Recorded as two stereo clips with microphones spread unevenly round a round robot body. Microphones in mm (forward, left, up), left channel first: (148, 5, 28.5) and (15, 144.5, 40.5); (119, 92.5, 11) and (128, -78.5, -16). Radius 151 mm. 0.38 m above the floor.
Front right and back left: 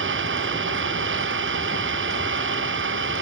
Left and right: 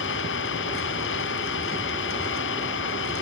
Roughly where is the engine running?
Behind left.